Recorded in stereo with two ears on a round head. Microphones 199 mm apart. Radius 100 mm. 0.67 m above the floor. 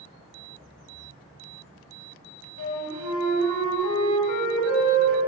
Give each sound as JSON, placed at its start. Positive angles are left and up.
{"t": 2.6, "sound": "a flute", "side_deg": 80, "distance_m": 1.2}